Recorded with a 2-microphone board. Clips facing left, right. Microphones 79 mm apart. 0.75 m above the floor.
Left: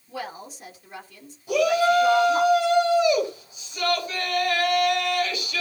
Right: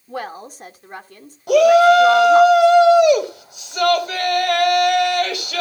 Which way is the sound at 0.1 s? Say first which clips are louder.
Right 5 dB; 55° right (ahead or behind).